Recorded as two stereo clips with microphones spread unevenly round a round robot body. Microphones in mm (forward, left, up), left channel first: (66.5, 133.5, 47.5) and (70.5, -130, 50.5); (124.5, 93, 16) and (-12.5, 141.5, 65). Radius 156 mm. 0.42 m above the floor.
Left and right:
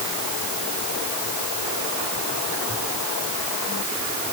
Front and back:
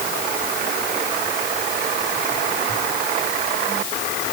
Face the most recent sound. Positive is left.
No sound to turn to.